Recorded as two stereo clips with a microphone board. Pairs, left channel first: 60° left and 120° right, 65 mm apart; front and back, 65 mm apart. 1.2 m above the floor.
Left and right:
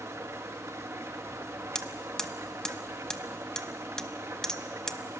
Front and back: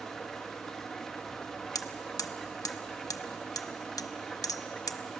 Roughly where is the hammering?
Ahead.